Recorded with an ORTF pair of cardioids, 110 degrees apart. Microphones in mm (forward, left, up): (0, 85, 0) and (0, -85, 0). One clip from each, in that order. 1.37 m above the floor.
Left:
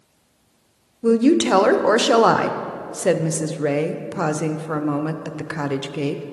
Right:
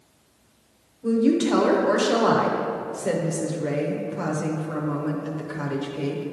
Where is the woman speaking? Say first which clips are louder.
Left 5 dB; 50° left, 0.5 m.